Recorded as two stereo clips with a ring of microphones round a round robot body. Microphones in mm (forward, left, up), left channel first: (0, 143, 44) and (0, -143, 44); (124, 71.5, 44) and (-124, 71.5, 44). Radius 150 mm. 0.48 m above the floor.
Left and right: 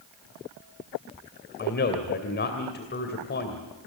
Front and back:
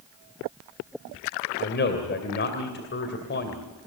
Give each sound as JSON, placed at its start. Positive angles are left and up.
{"t": 1.6, "sound": "a man speaking", "azimuth_deg": 40, "distance_m": 2.5}